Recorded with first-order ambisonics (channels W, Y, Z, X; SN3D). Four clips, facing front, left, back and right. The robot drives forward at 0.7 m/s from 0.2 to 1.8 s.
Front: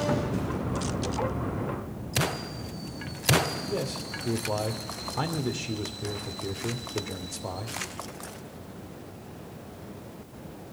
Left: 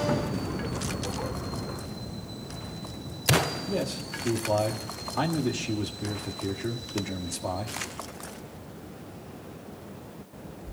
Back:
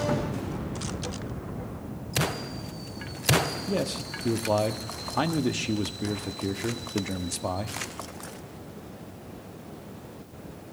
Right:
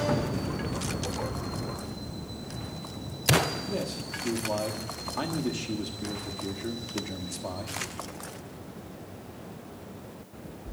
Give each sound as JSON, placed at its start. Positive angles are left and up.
{"t": 3.7, "sound": "a man speaking", "azimuth_deg": 170, "distance_m": 1.3}